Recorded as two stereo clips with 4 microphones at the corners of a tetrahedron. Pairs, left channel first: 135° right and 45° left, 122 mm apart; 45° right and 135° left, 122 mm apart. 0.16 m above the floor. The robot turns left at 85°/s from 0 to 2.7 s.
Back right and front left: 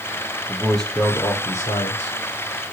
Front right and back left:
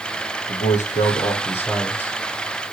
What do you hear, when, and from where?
0.5 s a man speaking: 25° right, 6 m; by 2.2 s 165° right, 6 m